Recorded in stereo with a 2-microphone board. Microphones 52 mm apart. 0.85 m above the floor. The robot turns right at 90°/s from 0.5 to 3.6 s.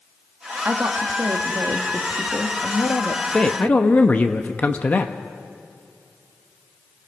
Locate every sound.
0.7 s a woman speaking: 140° right, 1.5 m; by 3.2 s 90° left, 1.5 m
3.3 s a man speaking: 15° left (ahead or behind), 0.8 m; by 5.2 s 30° left (ahead or behind), 0.8 m